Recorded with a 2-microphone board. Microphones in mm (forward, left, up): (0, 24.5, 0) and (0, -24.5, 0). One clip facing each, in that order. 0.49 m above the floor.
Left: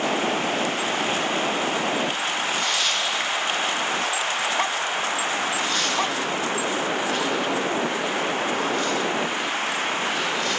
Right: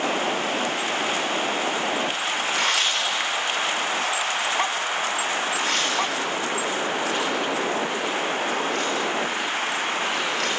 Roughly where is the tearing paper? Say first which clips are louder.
Right 3 dB; right.